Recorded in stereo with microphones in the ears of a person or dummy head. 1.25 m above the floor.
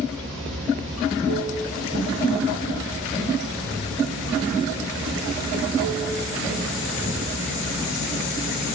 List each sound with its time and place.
0.0 s running water: 70° right (ahead or behind), 6.5 m